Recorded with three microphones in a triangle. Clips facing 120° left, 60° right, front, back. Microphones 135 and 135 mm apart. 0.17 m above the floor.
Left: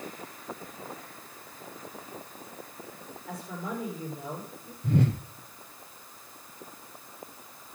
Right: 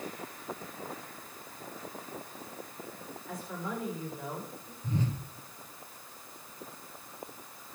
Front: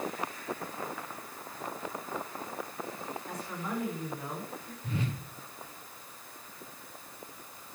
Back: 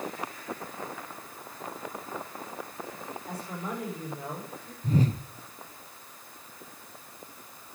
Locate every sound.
3.3 s a woman speaking: 125° left, 10 m
4.8 s a whoosh: 130° left, 0.6 m